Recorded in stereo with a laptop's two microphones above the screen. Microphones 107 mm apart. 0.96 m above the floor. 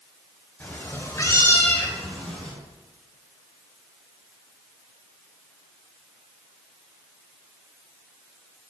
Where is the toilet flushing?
I don't hear a toilet flushing.